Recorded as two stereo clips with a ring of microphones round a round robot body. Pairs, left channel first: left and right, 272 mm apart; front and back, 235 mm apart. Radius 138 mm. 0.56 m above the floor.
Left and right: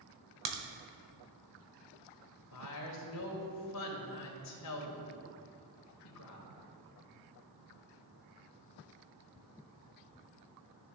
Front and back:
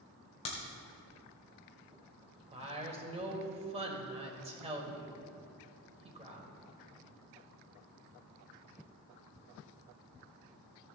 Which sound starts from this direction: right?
A crack, at 0.5 s.